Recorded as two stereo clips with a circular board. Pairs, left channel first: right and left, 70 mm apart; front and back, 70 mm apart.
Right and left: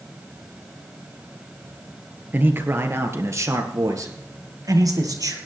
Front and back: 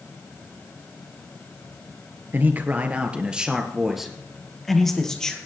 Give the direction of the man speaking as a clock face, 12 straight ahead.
7 o'clock.